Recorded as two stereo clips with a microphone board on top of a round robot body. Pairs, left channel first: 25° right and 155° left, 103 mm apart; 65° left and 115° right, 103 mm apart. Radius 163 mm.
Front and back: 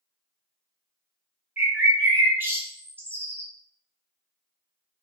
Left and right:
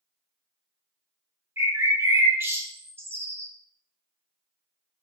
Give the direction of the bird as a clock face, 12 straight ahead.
5 o'clock.